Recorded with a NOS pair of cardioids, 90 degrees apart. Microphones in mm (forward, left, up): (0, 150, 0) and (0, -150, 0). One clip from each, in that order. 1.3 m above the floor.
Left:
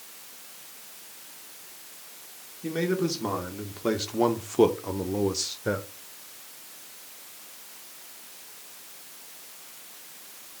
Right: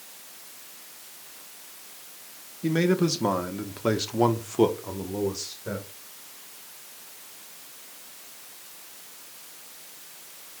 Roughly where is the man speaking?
Ahead right.